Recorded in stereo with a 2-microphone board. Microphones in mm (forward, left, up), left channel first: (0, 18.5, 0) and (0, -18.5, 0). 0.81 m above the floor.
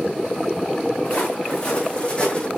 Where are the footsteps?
30° left (ahead or behind), 4 m.